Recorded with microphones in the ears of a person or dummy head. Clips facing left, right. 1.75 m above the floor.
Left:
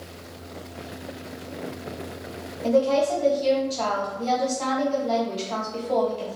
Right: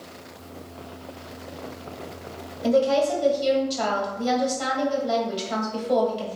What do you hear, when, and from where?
2.6 s a woman speaking: 15° right (ahead or behind), 1.2 m